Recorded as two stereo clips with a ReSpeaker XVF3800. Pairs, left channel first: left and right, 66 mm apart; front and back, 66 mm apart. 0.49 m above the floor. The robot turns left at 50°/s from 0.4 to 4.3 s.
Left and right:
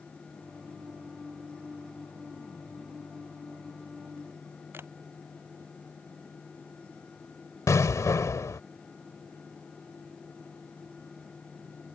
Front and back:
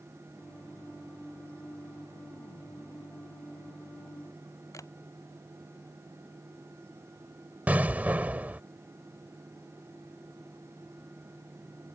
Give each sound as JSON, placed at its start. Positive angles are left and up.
{"t": 4.7, "sound": "a camera shutter", "azimuth_deg": -35}
{"t": 7.7, "sound": "an explosion", "azimuth_deg": 120}